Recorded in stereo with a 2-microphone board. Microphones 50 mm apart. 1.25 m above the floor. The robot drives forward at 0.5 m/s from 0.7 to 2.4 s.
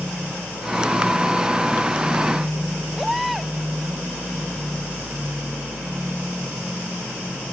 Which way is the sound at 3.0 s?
Centre (ahead or behind).